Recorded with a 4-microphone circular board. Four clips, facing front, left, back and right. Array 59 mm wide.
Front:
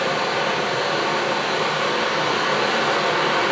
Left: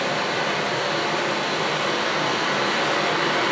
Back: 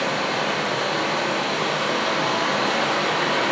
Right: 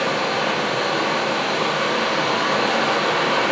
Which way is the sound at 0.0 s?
70° right.